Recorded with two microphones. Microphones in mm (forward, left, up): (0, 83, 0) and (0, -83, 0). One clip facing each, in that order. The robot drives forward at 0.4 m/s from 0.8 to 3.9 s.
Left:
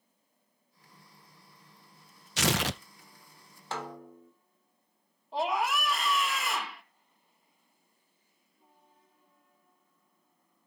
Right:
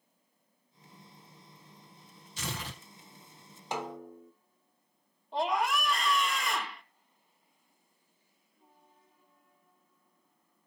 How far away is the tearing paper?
About 0.5 m.